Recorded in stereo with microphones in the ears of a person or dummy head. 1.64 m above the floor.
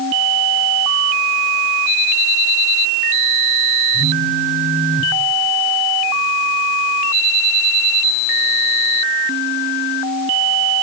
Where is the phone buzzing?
75° right (ahead or behind), 1.3 m.